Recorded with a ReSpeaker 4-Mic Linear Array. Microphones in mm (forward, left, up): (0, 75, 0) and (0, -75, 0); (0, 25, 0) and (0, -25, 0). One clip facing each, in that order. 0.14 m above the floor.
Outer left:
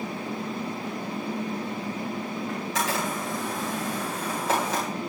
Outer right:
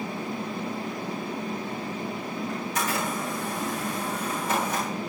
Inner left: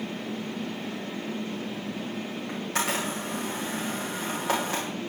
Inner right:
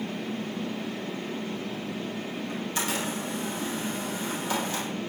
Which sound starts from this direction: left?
A camera shutter, at 2.5 s.